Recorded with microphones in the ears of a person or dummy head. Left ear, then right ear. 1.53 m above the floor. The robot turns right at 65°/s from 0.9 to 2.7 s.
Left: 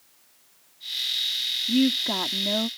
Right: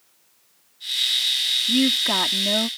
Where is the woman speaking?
145° right; by 2.7 s 80° right.